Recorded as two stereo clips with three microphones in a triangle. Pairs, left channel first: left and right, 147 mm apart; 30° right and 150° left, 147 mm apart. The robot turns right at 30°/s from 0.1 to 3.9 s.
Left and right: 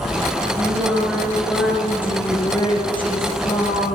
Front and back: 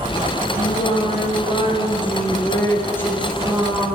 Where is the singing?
30° right, 2.5 m; by 4.0 s 70° left, 2.5 m.